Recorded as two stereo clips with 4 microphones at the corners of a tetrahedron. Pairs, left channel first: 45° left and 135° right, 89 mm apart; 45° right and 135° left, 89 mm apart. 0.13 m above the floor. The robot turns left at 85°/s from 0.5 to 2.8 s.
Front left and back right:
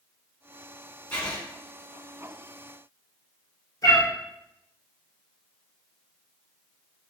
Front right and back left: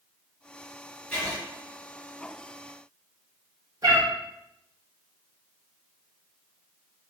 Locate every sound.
1.1 s writing: 5° left, 1.4 m; by 1.4 s 20° right, 1.4 m
3.8 s a cat meowing: 90° left, 1.0 m